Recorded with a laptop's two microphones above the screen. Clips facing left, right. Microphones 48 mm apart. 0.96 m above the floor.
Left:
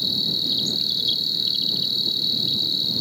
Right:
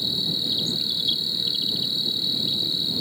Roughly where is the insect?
Centre.